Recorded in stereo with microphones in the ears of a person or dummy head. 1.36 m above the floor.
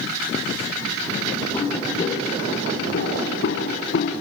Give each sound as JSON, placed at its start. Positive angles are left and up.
{"t": 1.5, "sound": "footsteps", "side_deg": 30, "distance_m": 2.0}